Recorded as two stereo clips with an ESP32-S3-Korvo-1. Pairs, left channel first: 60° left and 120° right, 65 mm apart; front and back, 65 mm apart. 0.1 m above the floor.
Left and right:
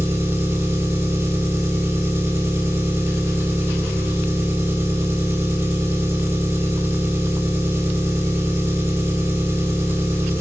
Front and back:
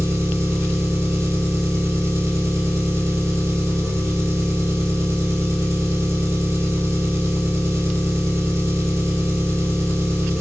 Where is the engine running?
155° right, 2 m.